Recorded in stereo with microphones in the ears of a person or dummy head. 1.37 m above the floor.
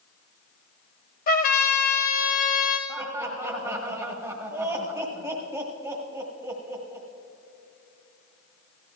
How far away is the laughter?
About 1.5 m.